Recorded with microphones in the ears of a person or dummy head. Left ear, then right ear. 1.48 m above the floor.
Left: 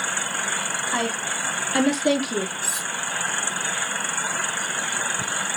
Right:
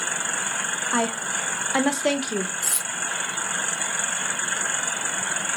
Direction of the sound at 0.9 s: 30° right (ahead or behind).